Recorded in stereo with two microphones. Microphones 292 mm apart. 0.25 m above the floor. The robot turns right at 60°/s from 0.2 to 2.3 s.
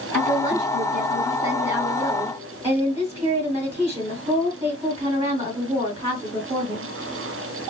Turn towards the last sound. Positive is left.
turn(degrees=-35)